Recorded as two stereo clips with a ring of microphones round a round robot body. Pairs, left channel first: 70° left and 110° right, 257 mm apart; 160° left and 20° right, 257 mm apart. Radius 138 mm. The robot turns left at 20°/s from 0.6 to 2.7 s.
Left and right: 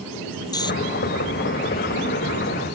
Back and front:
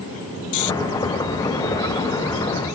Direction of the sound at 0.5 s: 145° left.